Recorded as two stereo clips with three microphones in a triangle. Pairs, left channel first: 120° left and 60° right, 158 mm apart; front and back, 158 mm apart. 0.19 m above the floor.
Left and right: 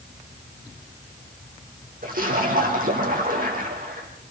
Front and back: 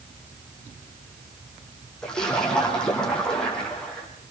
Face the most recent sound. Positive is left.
turn(degrees=-85)